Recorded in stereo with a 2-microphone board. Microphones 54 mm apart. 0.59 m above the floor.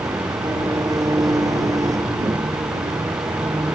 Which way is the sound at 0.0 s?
85° right.